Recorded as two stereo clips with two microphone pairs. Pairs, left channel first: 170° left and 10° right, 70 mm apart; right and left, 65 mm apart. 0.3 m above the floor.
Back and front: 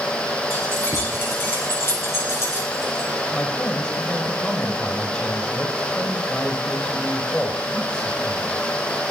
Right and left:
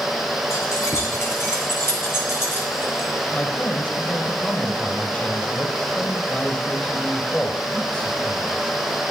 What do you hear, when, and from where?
0.5 s keys jangling: 135° right, 3.5 m; by 3.1 s 145° right, 2 m
3.3 s a man speaking: 130° right, 1.2 m